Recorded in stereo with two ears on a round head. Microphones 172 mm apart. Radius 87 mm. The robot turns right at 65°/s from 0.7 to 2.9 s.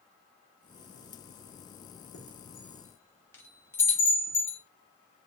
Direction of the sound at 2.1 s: 45° left (ahead or behind).